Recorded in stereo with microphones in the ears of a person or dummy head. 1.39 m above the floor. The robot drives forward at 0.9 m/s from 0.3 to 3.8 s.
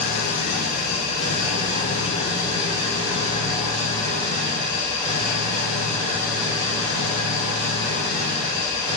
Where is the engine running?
55° left (ahead or behind), 1.4 m; by 9.0 s 15° left (ahead or behind), 4 m.